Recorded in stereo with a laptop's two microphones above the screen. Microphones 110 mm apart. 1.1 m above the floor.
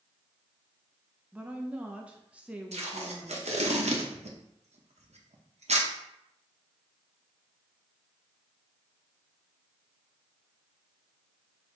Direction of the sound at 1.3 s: 10° right (ahead or behind).